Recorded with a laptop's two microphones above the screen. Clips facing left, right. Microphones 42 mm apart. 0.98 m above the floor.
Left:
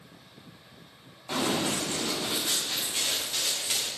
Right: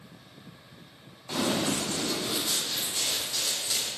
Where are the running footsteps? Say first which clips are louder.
Even; 15° left (ahead or behind), 6 m; by 3.9 s 45° left (ahead or behind), 6.5 m.